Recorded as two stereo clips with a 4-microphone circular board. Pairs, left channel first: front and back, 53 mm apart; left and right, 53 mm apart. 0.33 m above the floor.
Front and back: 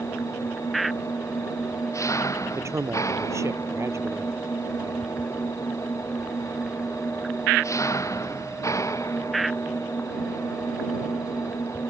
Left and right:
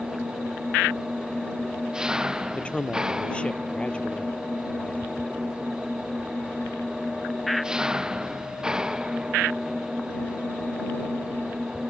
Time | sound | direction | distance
0.0 | an engine running | 15° right | ?
2.5 | a man speaking | 155° left | ?